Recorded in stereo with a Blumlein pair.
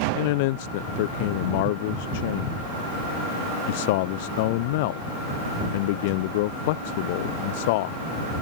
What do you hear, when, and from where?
0.1 s a man speaking: 50° left